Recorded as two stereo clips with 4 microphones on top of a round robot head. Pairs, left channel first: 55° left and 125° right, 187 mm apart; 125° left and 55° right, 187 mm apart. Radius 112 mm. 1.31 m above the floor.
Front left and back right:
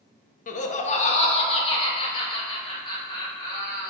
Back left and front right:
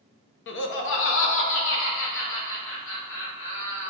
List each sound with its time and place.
0.5 s laughter: 105° left, 0.8 m; by 3.9 s 120° left, 3 m